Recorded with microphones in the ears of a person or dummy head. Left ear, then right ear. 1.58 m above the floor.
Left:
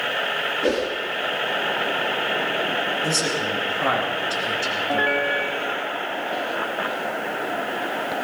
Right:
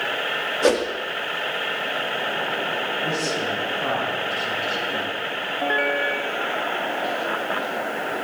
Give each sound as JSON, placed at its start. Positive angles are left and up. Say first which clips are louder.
{"t": 0.6, "sound": "a whoosh", "louder": "right 5 dB", "side_deg": -45, "distance_m": 1.7}
{"t": 3.0, "sound": "a man speaking", "louder": "left 1 dB", "side_deg": 85, "distance_m": 9.0}